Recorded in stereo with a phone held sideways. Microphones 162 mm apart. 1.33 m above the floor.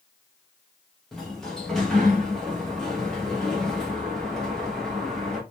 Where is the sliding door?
5° left (ahead or behind), 0.8 m.